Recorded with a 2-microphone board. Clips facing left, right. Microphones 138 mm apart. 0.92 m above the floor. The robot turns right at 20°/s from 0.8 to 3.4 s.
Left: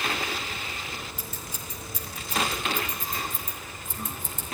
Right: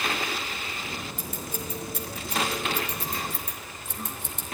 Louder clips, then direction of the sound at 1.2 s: Right 5 dB; 45° right (ahead or behind).